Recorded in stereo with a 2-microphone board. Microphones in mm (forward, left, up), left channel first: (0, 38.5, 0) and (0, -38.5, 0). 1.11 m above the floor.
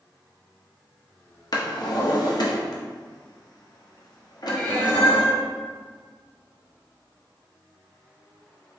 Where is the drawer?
55° left (ahead or behind), 0.7 m.